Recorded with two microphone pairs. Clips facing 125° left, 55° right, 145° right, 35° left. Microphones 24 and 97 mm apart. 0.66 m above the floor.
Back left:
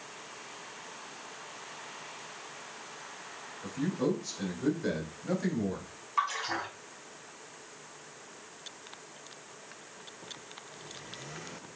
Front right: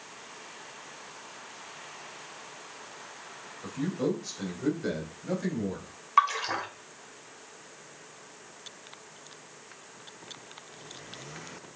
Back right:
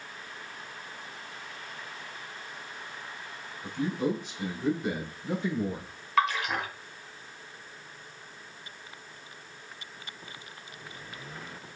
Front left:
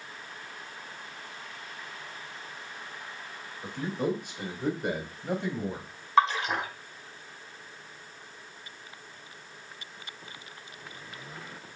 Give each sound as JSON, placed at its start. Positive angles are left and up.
{"t": 3.6, "sound": "a man speaking", "azimuth_deg": 0, "distance_m": 3.0}
{"t": 6.2, "sound": "a splash", "azimuth_deg": -25, "distance_m": 2.0}